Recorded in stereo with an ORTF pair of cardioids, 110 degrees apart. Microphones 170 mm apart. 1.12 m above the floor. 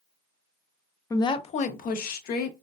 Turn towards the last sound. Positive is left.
turn(degrees=70)